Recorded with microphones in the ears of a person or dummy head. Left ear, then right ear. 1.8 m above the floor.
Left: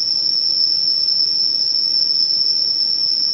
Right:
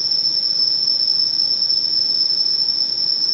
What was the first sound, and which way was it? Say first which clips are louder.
An insect: left 1 dB; centre (ahead or behind).